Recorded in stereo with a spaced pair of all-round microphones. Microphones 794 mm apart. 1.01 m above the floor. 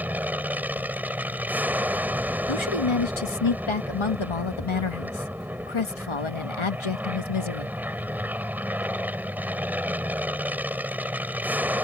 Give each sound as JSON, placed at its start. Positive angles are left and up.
{"t": 0.0, "sound": "an aircraft", "side_deg": 0}
{"t": 2.5, "sound": "a woman speaking", "side_deg": 35}